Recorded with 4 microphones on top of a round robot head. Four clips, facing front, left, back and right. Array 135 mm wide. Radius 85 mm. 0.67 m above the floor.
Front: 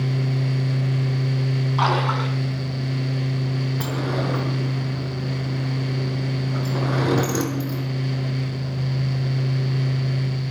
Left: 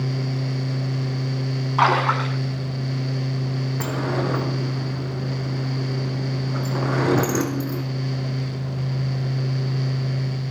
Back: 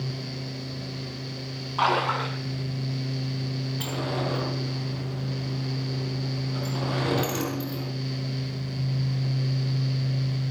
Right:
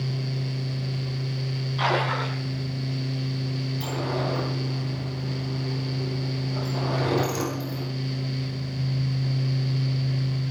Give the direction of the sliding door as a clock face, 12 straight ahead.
10 o'clock.